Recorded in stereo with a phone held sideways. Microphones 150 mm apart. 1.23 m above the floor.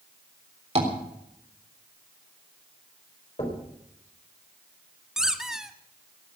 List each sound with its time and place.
0.8 s tapping: 45° right (ahead or behind), 3.5 m
3.4 s knocking: 45° left (ahead or behind), 4 m
5.2 s a squeak: 5° right (ahead or behind), 1.1 m